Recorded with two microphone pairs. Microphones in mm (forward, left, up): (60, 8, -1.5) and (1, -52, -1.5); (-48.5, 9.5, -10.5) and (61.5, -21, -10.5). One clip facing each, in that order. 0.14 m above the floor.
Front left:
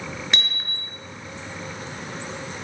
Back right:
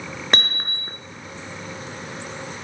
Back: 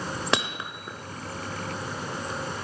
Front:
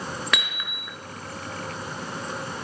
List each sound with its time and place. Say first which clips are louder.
0.3 s hammering: back right 5 dB, back 3 dB; 150° right, 1.4 m